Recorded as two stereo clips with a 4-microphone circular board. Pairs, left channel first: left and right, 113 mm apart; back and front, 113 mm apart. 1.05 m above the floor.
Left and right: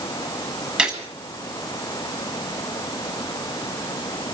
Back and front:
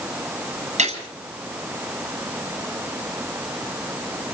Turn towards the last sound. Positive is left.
turn(degrees=-10)